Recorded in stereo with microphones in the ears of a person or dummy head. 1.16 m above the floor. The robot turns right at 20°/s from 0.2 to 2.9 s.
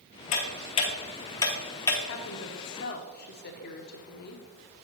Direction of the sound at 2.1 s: 60° left (ahead or behind).